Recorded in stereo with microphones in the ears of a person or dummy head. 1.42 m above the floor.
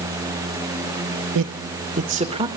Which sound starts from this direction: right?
A man speaking, at 1.4 s.